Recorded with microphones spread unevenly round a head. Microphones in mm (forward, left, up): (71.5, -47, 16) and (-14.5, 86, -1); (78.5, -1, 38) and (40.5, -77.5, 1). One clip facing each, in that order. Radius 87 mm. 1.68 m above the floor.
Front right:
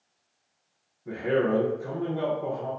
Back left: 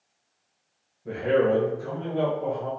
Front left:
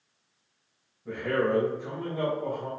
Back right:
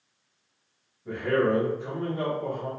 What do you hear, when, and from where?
1.1 s a man speaking: 155° left, 1.0 m